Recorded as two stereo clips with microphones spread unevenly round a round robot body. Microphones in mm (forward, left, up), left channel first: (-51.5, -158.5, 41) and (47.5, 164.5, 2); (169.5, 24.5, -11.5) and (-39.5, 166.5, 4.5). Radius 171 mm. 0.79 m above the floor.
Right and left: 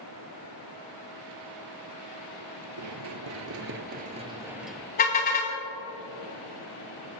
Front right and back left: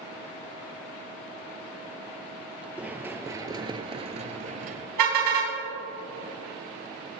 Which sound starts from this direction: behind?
A car horn, at 5.0 s.